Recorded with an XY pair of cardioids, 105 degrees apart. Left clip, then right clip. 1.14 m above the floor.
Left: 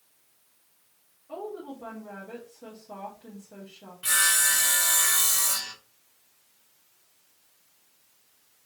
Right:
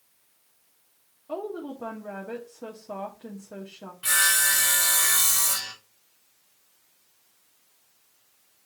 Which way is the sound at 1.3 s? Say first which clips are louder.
Right 4 dB; 55° right.